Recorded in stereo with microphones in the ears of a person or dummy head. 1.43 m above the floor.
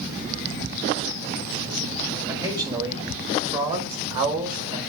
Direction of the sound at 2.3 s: 25° right (ahead or behind).